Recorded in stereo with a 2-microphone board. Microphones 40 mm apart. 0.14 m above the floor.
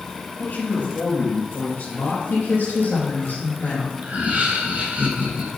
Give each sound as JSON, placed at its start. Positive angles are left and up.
{"t": 0.4, "sound": "a man speaking", "side_deg": 55, "distance_m": 3.0}
{"t": 2.3, "sound": "a woman speaking", "side_deg": 70, "distance_m": 3.5}
{"t": 4.0, "sound": "laughter", "side_deg": -45, "distance_m": 2.0}